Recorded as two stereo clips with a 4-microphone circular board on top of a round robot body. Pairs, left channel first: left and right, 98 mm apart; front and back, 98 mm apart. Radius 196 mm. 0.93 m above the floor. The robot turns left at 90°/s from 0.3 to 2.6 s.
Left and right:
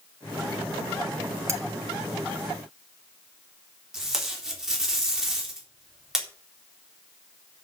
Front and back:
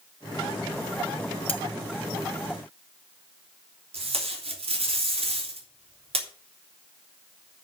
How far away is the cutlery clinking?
About 1.3 m.